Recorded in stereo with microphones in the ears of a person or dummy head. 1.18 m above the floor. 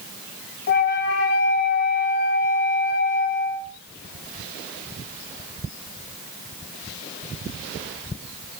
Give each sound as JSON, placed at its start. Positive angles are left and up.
{"t": 0.7, "sound": "a flute", "side_deg": 50, "distance_m": 3.0}